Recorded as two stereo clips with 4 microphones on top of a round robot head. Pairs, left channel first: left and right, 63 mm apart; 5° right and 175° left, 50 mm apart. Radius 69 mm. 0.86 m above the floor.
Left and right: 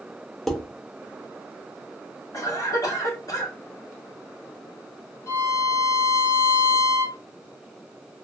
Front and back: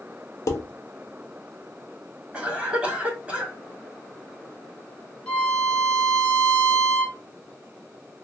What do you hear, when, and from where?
0.5 s dishes clattering: 5° left, 0.8 m
2.3 s a cough: 105° left, 1.8 m
5.3 s a violin: 65° left, 1.4 m